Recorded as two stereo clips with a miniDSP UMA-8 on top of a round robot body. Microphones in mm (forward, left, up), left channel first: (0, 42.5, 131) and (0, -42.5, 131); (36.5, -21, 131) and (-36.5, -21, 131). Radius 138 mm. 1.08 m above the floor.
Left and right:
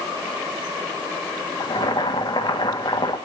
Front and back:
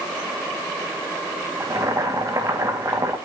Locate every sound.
1.6 s boiling: 130° left, 2.0 m